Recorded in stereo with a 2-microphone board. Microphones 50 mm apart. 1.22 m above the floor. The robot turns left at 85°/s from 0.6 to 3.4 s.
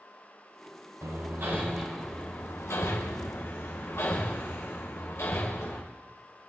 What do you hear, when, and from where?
1.0 s hammering: 80° right, 3 m; by 5.8 s 60° left (ahead or behind), 3 m